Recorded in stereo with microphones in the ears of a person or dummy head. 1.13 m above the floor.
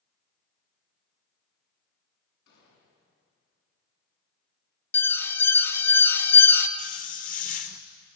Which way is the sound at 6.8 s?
45° left (ahead or behind).